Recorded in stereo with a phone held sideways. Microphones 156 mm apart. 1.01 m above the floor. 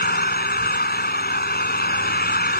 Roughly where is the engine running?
Left.